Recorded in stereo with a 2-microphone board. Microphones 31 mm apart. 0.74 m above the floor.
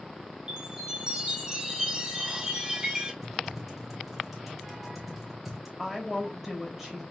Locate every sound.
0.5 s a chime: 20° right (ahead or behind), 1.9 m
3.2 s typing on a keyboard: centre (ahead or behind), 3 m
5.8 s a woman speaking: centre (ahead or behind), 3 m